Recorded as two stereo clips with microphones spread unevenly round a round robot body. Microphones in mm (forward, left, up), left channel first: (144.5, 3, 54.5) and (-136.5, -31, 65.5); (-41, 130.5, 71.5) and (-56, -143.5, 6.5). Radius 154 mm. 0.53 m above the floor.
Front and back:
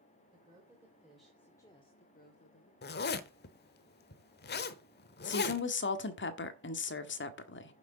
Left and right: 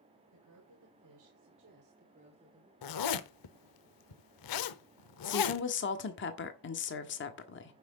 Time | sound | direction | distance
0.3 | a woman speaking | 100° right | 3 m
2.8 | a zipper | 65° left | 0.9 m
5.2 | a woman speaking | 35° left | 1.4 m